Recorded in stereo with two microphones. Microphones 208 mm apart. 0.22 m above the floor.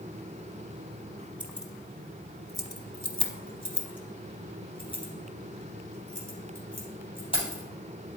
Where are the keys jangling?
5° right (ahead or behind), 1.1 m; by 7.6 s 25° left (ahead or behind), 4 m.